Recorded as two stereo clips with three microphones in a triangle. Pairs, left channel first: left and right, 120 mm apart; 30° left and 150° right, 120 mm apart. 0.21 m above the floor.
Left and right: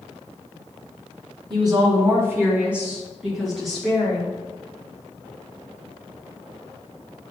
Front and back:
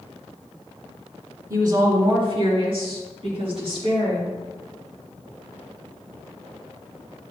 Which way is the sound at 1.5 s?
105° right.